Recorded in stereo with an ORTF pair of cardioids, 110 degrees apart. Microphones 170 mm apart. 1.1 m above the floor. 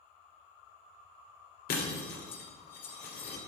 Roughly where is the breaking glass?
Ahead left.